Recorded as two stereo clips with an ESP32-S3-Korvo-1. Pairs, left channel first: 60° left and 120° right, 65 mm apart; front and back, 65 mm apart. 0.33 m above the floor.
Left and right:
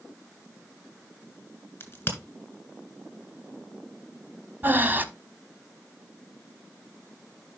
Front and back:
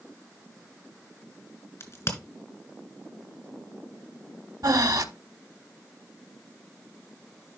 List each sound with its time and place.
1.8 s a crack: 20° left, 2.5 m
4.6 s breathing: straight behind, 0.8 m